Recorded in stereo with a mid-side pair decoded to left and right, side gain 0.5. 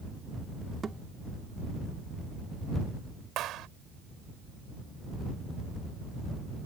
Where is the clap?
70° right.